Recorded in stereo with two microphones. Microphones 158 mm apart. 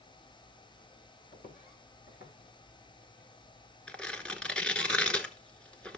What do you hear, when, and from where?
1.3 s footsteps: 65° left (ahead or behind), 2 m; by 3.3 s 85° left, 4 m
3.9 s tearing paper: 5° left (ahead or behind), 0.8 m